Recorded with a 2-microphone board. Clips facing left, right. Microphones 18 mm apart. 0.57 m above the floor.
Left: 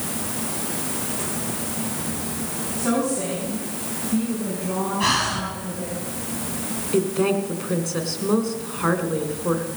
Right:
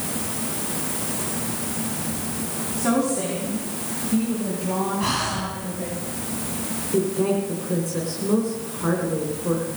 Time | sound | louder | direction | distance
2.8 | a woman speaking | right 1 dB | 70° right (ahead or behind) | 5 m
5.0 | breathing | left 3 dB | 30° left (ahead or behind) | 3.5 m
6.9 | a woman speaking | left 1 dB | 40° left (ahead or behind) | 2.5 m